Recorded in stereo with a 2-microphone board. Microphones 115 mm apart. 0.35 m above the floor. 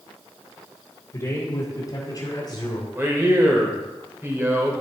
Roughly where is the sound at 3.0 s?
Right.